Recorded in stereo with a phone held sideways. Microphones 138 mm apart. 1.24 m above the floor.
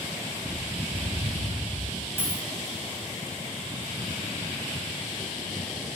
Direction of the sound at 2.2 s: 15° left (ahead or behind).